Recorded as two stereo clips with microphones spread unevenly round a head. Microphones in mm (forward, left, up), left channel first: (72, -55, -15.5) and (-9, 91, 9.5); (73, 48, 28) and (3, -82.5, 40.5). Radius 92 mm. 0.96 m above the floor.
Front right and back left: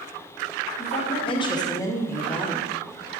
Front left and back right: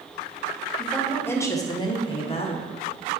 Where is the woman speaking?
25° right, 1.3 m; by 2.7 s 25° left, 1.5 m.